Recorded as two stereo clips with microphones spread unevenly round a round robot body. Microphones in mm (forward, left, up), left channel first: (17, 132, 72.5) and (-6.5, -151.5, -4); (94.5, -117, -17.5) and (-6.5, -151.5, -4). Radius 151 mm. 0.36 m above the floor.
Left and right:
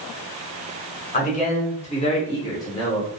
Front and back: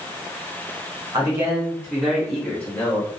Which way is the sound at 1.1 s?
155° left.